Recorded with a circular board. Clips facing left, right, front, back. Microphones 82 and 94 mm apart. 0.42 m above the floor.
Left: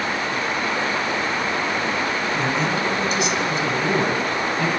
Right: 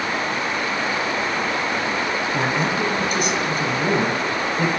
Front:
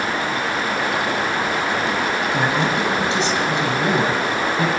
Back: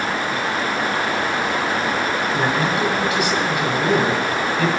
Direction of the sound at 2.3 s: 55° right.